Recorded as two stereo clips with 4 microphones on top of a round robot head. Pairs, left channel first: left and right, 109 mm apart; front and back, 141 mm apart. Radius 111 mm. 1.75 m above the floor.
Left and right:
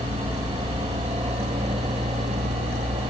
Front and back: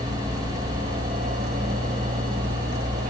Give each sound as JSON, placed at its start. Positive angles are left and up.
{"t": 0.0, "sound": "a helicopter", "azimuth_deg": -155}